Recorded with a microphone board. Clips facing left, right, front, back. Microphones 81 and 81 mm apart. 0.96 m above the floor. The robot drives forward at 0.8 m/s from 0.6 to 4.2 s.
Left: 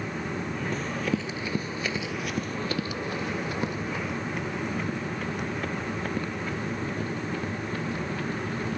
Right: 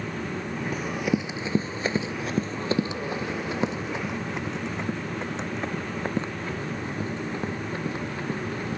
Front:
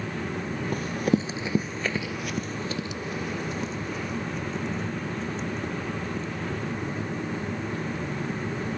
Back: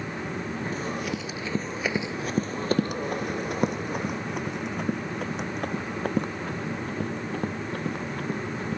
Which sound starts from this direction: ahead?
Running footsteps, at 0.7 s.